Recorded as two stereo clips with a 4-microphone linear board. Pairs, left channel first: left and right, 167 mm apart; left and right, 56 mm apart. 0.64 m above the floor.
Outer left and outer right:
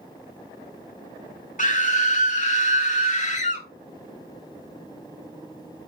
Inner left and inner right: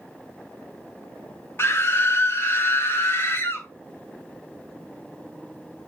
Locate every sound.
1.6 s a scream: 45° left (ahead or behind), 1.6 m